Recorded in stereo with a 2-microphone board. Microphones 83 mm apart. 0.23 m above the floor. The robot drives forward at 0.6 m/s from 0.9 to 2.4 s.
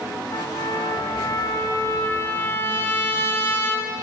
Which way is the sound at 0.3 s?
55° left (ahead or behind).